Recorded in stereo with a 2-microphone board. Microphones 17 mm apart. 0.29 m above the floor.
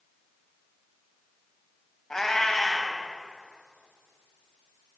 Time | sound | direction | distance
2.1 | a cat meowing | 35° left (ahead or behind) | 0.9 m